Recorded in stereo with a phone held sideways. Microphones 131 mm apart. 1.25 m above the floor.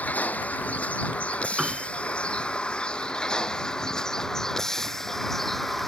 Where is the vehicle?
10° left (ahead or behind); by 5.9 s centre (ahead or behind).